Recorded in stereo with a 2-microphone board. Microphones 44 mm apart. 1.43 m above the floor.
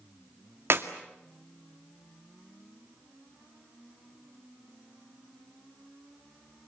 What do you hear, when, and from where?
0.7 s a clap: 60° right (ahead or behind), 2 m